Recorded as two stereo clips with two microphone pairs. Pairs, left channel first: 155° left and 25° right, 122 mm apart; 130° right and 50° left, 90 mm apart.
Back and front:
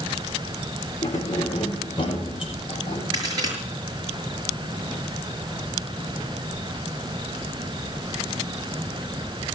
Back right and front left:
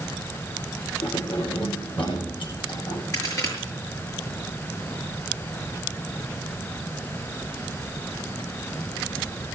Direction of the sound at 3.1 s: 80° right.